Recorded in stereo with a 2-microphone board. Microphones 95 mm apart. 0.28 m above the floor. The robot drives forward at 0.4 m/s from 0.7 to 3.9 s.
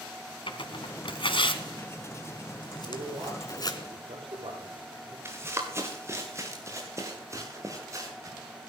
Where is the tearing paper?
65° left (ahead or behind), 1.5 m; by 3.8 s 45° left (ahead or behind), 2.0 m.